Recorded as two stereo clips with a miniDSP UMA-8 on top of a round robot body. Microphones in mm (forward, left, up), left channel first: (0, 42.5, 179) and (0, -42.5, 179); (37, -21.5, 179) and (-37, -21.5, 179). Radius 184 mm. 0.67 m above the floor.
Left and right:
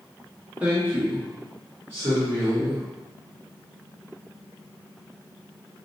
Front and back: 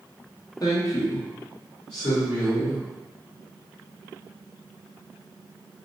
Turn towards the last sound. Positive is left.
turn(degrees=-35)